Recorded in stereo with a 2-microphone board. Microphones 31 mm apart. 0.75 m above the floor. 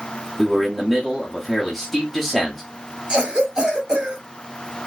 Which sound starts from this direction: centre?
A man speaking, at 0.4 s.